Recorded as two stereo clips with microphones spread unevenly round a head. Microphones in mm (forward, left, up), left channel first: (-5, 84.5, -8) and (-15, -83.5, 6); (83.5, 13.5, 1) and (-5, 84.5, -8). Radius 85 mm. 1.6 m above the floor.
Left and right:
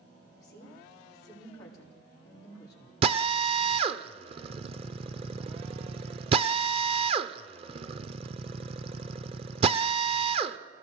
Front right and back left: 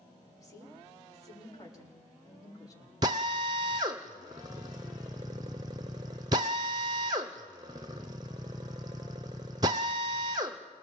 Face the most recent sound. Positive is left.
turn(degrees=-150)